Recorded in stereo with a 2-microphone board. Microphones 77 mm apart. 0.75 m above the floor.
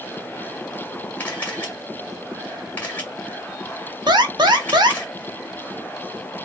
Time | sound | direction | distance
1.2 | a camera shutter | 20° left (ahead or behind) | 1.7 m
4.1 | an alarm | 65° right (ahead or behind) | 0.7 m